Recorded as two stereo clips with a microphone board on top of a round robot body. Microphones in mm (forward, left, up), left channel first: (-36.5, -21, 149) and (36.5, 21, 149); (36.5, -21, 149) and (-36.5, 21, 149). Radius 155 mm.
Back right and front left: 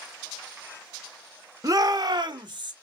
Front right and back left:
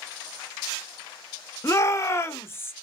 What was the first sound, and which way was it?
A shout, 10° left.